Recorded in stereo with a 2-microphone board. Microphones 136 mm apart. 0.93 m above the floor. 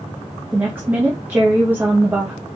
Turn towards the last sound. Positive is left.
turn(degrees=-15)  # may be behind; listen again after turning